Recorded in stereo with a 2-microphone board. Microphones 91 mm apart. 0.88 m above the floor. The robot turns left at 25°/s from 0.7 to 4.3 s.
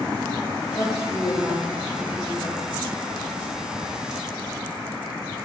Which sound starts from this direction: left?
A woman speaking, at 0.8 s.